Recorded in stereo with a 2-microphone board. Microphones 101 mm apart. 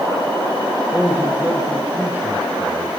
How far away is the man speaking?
About 2.5 m.